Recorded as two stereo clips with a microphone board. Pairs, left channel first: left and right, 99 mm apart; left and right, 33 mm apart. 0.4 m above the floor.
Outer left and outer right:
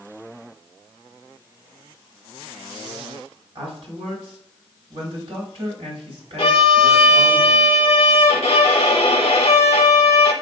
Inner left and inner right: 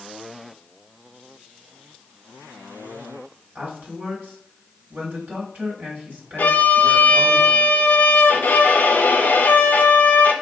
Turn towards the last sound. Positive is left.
turn(degrees=75)  # may be behind; listen again after turning